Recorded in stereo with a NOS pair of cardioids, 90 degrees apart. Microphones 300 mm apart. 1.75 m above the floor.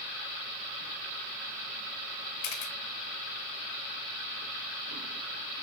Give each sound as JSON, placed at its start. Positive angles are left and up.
{"t": 2.4, "sound": "a camera shutter", "azimuth_deg": 65, "distance_m": 0.9}